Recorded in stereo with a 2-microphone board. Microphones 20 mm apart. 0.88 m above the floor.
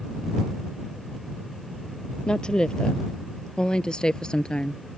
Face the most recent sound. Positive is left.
turn(degrees=50)  # may be behind; listen again after turning